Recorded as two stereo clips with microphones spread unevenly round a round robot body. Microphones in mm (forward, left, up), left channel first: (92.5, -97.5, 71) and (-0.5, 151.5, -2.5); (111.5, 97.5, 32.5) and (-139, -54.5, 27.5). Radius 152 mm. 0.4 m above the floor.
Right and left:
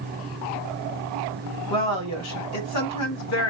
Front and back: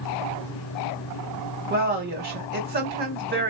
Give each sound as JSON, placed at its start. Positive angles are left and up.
{"t": 1.7, "sound": "a woman speaking", "azimuth_deg": -100, "distance_m": 1.2}